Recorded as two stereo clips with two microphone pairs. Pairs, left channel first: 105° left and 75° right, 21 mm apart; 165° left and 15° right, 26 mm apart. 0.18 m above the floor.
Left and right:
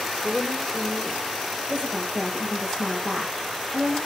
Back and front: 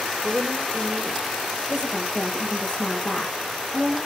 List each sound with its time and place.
0.2 s a woman speaking: 20° right, 4 m
1.7 s a woman speaking: 125° right, 8.5 m